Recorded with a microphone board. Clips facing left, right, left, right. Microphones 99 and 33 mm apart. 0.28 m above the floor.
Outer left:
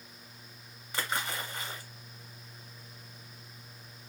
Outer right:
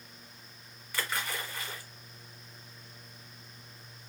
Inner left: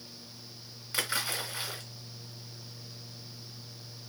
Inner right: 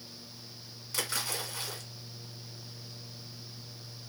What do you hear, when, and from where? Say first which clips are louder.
0.9 s a splash: outer left 1 dB, inner left 3 dB; 25° left (ahead or behind), 0.9 m